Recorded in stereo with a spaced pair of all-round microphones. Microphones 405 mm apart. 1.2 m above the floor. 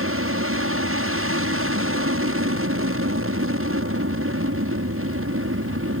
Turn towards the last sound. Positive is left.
turn(degrees=-35)  # may be behind; listen again after turning